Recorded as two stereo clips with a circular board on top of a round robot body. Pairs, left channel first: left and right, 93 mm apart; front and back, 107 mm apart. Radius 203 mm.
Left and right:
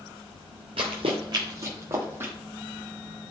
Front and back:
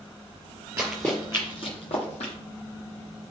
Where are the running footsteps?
115° right, 0.7 m; by 2.3 s 20° right, 1.6 m.